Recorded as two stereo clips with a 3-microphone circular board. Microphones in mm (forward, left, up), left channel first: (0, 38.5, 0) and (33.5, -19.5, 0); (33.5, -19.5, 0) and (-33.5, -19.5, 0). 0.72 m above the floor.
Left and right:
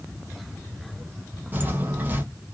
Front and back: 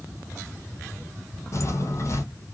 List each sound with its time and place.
1.5 s footsteps: 10° right, 1.0 m